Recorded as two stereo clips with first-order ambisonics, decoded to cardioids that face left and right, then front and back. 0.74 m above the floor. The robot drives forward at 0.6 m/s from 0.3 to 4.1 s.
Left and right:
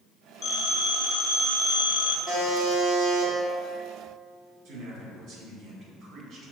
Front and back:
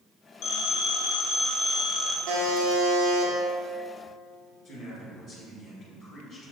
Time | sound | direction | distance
0.4 | a phone ringing | 30° left | 1.1 m
2.3 | a buzzer | 175° left | 0.9 m
4.7 | a man speaking | 100° right | 1.1 m